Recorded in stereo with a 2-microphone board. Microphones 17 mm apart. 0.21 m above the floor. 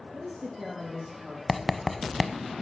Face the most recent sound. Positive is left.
turn(degrees=0)  # may be behind; listen again after turning